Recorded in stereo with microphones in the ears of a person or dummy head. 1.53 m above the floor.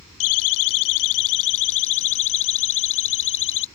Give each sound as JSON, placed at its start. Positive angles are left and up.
{"t": 0.2, "sound": "a siren", "side_deg": 80}